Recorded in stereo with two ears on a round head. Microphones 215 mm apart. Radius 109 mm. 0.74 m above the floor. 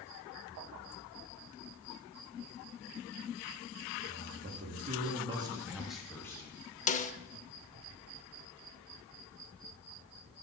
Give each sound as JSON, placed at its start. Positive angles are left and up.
{"t": 4.1, "sound": "a man speaking", "side_deg": -45, "distance_m": 1.6}
{"t": 6.9, "sound": "a snare drum", "side_deg": 30, "distance_m": 0.6}